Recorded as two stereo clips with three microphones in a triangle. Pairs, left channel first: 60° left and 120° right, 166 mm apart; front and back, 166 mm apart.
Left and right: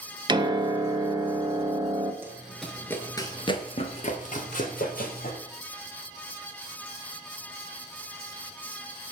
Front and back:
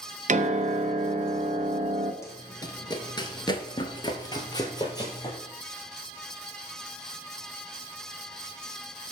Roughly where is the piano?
Behind.